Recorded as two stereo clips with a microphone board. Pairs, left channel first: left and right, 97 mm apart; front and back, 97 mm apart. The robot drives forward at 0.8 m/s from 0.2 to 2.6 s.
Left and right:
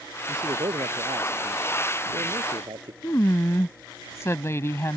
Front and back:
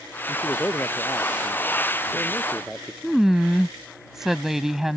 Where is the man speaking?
65° right; by 2.9 s 85° right.